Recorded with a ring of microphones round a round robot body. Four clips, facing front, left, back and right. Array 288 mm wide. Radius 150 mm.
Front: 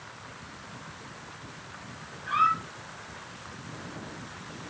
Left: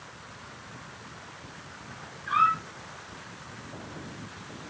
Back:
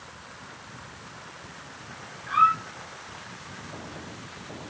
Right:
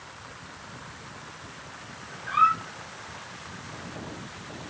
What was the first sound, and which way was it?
A squeak, 70° left.